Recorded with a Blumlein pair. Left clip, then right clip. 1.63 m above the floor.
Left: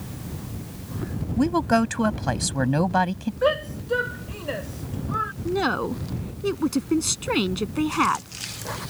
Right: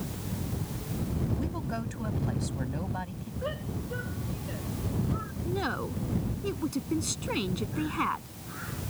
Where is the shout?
55° left.